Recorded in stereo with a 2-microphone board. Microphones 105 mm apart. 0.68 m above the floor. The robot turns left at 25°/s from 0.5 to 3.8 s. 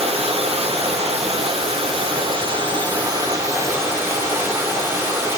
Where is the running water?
75° right, 5 m; by 5.4 s 155° right, 5 m.